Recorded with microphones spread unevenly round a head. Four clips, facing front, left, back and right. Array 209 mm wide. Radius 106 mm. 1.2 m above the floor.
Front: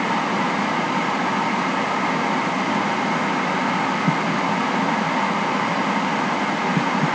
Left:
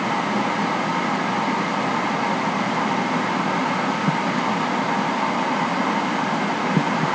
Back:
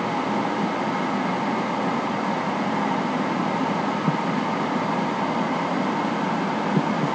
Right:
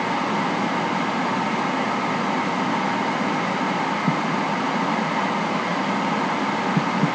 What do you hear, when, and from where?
Only background noise.